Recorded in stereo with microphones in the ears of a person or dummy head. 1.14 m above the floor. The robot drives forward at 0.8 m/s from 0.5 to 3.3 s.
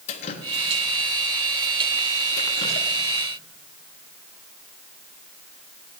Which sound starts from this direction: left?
Dripping, at 0.1 s.